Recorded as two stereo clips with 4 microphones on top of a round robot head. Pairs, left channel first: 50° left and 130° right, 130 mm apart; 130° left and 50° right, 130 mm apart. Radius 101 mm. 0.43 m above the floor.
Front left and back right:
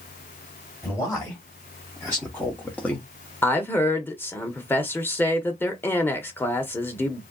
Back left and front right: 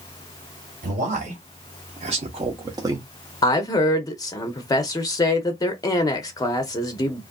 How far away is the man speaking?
About 1.8 m.